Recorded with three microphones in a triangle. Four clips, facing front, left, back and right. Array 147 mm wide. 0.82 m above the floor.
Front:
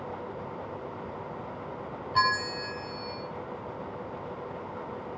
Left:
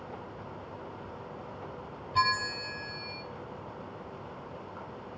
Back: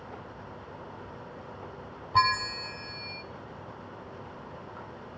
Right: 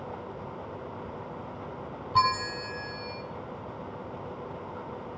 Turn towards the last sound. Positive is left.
turn(degrees=-135)